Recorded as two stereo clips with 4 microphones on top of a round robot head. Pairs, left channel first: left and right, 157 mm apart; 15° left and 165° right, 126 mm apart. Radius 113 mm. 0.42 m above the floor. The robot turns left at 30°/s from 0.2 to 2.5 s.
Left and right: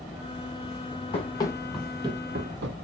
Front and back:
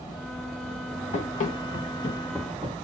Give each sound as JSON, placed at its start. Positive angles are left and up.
{"t": 1.1, "sound": "running footsteps", "azimuth_deg": 40, "distance_m": 1.2}